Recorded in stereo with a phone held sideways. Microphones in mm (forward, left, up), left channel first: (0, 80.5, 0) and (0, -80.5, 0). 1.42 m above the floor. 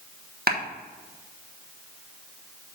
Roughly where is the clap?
Right.